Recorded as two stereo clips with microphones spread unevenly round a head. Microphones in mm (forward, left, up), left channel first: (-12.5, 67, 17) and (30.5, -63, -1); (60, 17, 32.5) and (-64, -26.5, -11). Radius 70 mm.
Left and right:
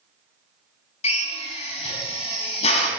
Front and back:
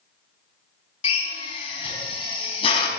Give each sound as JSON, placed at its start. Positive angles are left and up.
{"t": 1.0, "sound": "a drill", "azimuth_deg": 65, "distance_m": 4.5}